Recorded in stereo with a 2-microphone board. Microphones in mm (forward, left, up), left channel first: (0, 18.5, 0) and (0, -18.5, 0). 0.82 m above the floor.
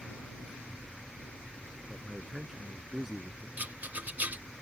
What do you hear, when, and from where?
1.9 s a man speaking: 5° right (ahead or behind); by 3.5 s 10° right (ahead or behind)
3.6 s a rattle: 40° right (ahead or behind)